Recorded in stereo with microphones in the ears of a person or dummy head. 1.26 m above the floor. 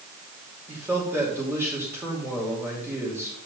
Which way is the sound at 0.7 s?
5° right (ahead or behind).